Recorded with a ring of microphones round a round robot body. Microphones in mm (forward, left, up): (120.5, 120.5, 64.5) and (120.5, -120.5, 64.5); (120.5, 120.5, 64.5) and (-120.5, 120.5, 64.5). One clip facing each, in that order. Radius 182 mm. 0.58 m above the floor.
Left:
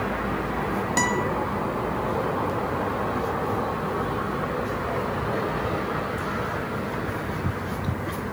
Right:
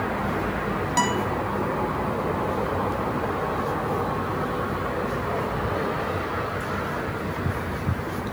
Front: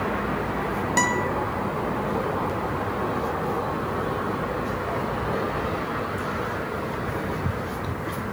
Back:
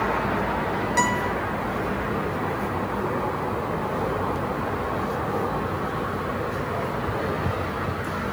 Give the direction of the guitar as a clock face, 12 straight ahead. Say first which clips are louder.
Even, front 1 dB; 11 o'clock.